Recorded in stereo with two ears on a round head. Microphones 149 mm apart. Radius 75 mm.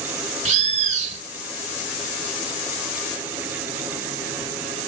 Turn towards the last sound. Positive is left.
turn(degrees=-45)  # may be behind; listen again after turning